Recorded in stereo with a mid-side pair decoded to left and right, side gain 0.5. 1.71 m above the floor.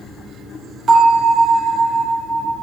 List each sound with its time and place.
0.9 s a bell: 50° right, 2.5 m